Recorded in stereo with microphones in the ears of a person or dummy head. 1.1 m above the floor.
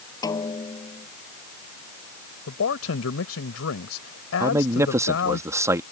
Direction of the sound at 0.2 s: 25° left (ahead or behind).